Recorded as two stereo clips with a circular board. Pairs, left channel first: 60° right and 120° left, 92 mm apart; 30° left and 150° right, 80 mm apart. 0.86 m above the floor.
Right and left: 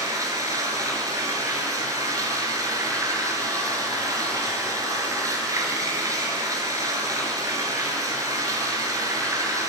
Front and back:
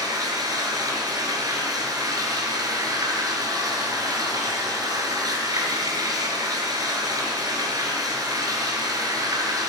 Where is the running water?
170° left, 7 m.